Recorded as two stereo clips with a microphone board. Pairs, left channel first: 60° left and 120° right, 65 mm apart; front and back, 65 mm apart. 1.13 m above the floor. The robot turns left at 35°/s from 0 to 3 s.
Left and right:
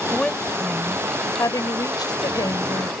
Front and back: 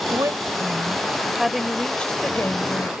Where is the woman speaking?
140° left; by 2.9 s 45° left.